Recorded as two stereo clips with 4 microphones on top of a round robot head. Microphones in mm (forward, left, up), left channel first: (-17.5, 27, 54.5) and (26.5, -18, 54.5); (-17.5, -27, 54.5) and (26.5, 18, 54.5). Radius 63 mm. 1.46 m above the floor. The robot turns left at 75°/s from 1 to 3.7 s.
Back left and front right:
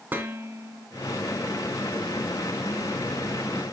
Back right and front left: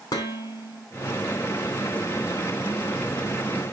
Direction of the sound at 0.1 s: 110° right.